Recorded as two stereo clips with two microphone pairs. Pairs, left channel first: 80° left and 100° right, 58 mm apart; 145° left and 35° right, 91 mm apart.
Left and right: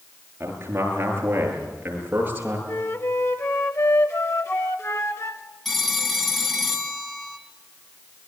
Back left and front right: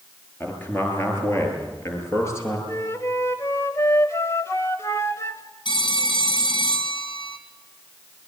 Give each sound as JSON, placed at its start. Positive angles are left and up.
{"t": 0.4, "sound": "a man speaking", "azimuth_deg": -150, "distance_m": 8.5}
{"t": 2.7, "sound": "a flute", "azimuth_deg": 95, "distance_m": 1.5}
{"t": 5.7, "sound": "a phone ringing", "azimuth_deg": 165, "distance_m": 2.5}